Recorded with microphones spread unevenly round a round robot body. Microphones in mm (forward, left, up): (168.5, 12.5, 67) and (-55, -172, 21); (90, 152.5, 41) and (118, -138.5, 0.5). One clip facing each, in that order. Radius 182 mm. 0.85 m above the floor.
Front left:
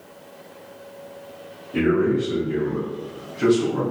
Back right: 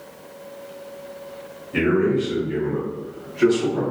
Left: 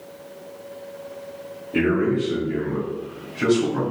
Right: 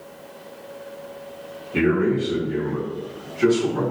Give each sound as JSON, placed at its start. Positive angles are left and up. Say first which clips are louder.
{"t": 1.7, "sound": "a man speaking", "louder": "even, even", "azimuth_deg": 160, "distance_m": 1.6}